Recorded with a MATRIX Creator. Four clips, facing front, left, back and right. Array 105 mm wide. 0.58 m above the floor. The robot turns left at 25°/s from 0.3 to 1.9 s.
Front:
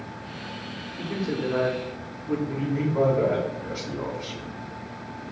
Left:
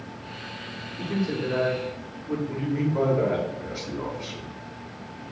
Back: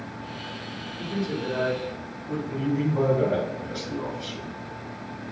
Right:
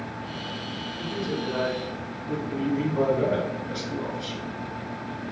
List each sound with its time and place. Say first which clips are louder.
1.0 s a man speaking: left 3 dB, front 1 dB; 45° left, 0.8 m; by 2.4 s 20° left, 0.8 m
2.5 s a man speaking: right 3 dB, back 1 dB; 50° left, 0.9 m